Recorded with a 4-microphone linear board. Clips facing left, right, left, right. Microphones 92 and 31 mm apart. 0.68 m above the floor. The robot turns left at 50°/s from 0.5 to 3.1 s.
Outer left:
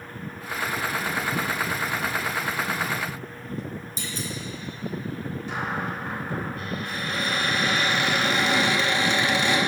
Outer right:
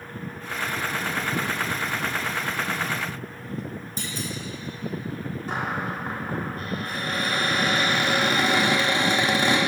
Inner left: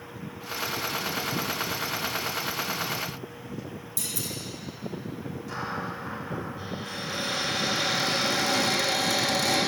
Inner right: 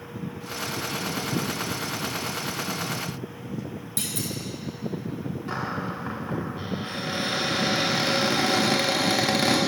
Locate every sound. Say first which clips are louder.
4.0 s a clunk: outer right 2 dB, inner right 4 dB; 60° right (ahead or behind), 1.0 m
5.5 s a cupboard door: outer right 1 dB, inner right 2 dB; 45° right (ahead or behind), 1.2 m